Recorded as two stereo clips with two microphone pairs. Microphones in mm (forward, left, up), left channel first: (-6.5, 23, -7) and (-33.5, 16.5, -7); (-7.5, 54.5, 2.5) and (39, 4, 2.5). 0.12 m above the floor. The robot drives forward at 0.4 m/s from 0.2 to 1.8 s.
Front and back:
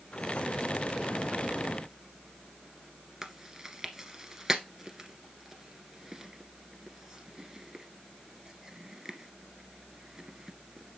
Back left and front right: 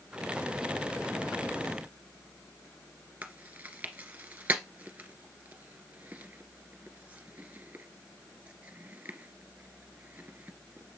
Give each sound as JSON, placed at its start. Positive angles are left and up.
{"t": 3.2, "sound": "chewing", "azimuth_deg": -110, "distance_m": 1.2}